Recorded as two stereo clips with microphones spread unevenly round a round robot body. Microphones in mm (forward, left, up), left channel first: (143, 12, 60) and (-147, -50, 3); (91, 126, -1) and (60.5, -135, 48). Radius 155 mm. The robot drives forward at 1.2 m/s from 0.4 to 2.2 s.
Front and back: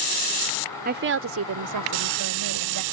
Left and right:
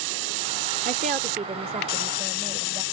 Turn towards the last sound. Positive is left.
turn(degrees=-175)